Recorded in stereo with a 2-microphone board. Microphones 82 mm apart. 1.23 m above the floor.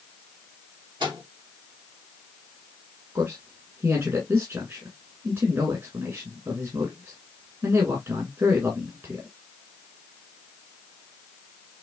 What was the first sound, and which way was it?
A microwave, 70° right (ahead or behind).